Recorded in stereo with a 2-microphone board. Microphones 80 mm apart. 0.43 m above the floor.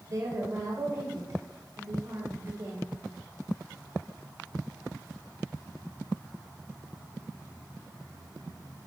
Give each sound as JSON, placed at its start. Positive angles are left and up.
{"t": 0.1, "sound": "a woman speaking", "side_deg": -45, "distance_m": 1.2}